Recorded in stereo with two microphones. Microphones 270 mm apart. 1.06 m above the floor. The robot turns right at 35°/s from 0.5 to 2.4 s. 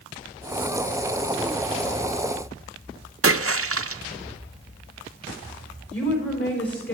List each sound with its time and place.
3.2 s a splash: 55° right (ahead or behind), 0.6 m
5.9 s a woman speaking: 55° left (ahead or behind), 4 m